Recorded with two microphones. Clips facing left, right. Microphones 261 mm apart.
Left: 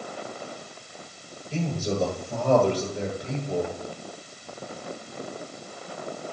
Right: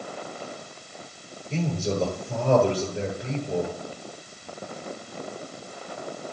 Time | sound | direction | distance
1.5 | a man speaking | 20° right (ahead or behind) | 9 m